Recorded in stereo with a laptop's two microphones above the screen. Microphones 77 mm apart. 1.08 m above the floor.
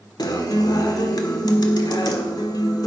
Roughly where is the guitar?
Left.